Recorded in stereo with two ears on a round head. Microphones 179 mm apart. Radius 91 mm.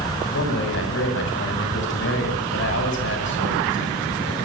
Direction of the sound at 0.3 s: 70° left (ahead or behind).